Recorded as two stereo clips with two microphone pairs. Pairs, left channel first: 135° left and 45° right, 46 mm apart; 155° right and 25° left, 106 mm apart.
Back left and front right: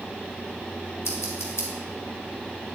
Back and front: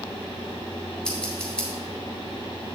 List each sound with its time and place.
1.1 s scissors: 125° left, 1.8 m